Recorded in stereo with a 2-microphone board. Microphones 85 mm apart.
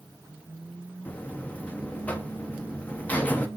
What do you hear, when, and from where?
1.1 s a buzzer: 20° left (ahead or behind), 0.5 m